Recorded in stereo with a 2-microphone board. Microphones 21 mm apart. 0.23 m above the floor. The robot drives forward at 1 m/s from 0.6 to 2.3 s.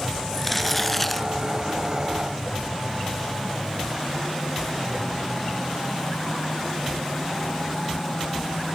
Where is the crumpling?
5° left (ahead or behind), 1.7 m; by 1.3 s 10° left (ahead or behind), 1.0 m.